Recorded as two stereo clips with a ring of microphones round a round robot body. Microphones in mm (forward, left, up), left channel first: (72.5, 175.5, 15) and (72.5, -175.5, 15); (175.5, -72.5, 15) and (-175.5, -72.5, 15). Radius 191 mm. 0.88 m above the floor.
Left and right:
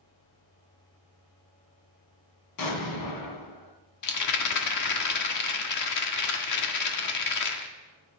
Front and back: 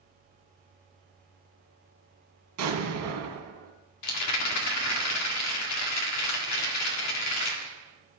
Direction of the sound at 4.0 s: 50° left.